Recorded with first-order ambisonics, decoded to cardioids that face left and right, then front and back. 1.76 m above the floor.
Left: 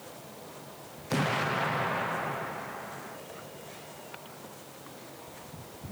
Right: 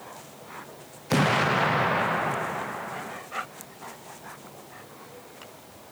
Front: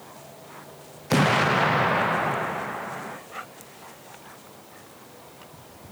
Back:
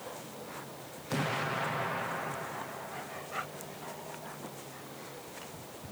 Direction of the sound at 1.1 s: 30° right.